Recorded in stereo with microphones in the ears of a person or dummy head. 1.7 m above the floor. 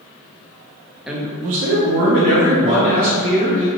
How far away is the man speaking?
About 0.5 m.